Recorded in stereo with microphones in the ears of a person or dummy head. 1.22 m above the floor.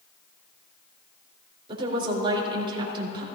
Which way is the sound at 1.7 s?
30° right (ahead or behind).